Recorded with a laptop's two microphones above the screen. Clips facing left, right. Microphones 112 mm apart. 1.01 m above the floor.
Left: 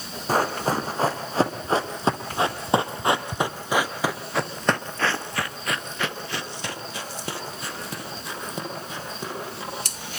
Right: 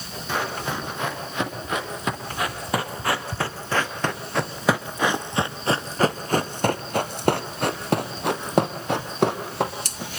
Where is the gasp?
I don't hear a gasp.